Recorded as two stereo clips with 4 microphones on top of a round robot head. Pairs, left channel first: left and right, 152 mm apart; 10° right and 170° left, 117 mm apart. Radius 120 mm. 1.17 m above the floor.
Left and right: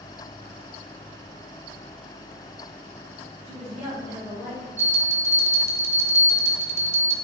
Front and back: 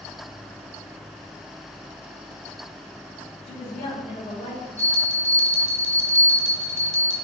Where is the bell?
160° right, 1.8 m.